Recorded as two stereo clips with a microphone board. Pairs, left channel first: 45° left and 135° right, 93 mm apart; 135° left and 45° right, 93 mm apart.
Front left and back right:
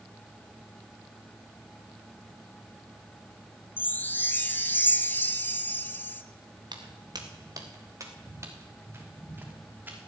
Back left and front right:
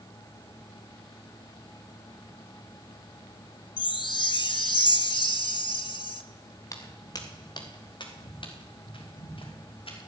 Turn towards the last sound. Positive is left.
turn(degrees=155)